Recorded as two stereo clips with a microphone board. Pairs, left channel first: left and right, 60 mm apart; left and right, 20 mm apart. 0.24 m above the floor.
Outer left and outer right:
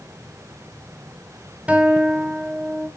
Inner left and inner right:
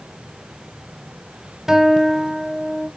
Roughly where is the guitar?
Right.